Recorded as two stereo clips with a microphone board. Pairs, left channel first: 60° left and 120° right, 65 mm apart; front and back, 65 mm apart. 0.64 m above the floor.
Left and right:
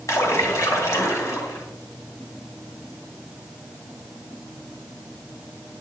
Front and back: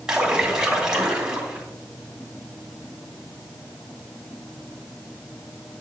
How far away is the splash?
About 2.5 m.